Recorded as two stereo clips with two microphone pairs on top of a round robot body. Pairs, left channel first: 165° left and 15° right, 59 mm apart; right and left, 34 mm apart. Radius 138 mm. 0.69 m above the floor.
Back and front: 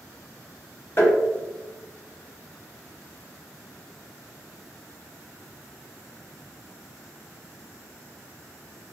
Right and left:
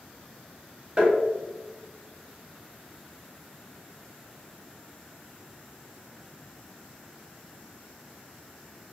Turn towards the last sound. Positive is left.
turn(degrees=130)